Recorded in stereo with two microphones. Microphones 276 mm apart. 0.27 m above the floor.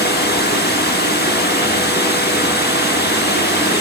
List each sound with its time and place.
0.0 s running water: 35° left (ahead or behind), 1.1 m